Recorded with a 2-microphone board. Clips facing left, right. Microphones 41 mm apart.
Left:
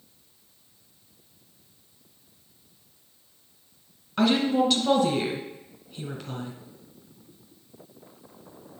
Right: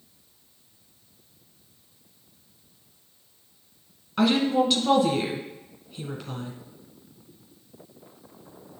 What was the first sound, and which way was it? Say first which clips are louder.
A woman speaking: right 1 dB; centre (ahead or behind).